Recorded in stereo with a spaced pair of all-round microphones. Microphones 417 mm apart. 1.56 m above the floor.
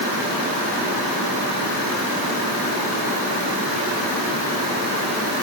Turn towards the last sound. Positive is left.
No sound to turn to.